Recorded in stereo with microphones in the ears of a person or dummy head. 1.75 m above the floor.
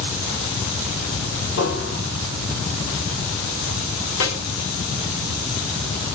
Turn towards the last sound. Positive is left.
turn(degrees=85)